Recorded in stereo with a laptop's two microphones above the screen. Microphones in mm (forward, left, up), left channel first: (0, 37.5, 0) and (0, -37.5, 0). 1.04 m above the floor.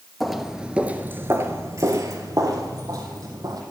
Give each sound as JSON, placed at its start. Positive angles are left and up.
{"t": 0.2, "sound": "footsteps", "side_deg": 5, "distance_m": 1.2}